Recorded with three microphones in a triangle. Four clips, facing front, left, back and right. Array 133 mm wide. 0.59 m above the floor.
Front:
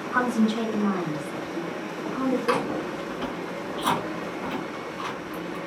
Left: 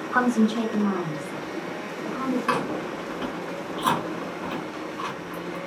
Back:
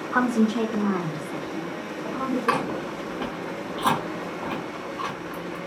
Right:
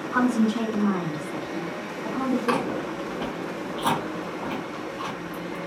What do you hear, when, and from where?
0.1 s a woman speaking: 140° left, 0.6 m; by 2.9 s 150° right, 1.7 m
2.5 s chewing: straight behind, 1.7 m